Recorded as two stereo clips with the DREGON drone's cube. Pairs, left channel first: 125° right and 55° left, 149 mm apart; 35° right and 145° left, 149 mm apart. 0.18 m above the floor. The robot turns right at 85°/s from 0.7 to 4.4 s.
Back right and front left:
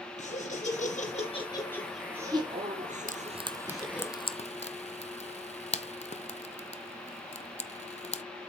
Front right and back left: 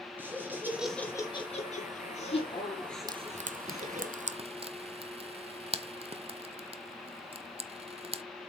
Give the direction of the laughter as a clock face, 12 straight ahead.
5 o'clock.